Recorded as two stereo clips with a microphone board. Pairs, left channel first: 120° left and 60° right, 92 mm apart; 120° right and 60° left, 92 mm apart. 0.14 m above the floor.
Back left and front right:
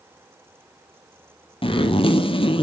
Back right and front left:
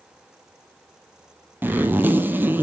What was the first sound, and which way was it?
A zipper, 130° left.